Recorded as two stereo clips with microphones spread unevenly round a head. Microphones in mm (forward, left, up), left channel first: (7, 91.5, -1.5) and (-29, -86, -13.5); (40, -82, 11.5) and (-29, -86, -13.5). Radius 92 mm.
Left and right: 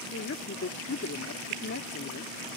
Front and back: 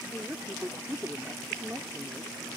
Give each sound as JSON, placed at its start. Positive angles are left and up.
{"t": 0.1, "sound": "a woman speaking", "azimuth_deg": 105}